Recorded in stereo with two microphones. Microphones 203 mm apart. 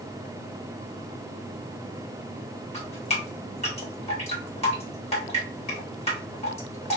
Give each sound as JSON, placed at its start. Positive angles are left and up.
{"t": 2.7, "sound": "dripping", "side_deg": 30, "distance_m": 1.9}